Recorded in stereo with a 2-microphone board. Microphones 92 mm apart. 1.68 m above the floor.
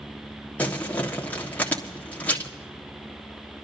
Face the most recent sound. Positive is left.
turn(degrees=20)  # may be behind; listen again after turning